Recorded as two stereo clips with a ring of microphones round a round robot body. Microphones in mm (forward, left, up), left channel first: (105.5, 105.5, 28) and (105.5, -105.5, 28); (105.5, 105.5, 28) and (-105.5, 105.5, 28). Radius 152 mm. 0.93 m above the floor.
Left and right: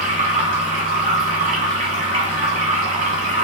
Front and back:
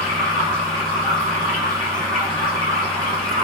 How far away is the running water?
About 1.9 m.